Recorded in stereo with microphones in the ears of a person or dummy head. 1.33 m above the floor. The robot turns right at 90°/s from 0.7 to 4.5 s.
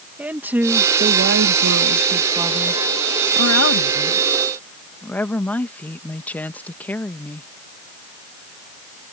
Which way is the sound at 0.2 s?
175° right.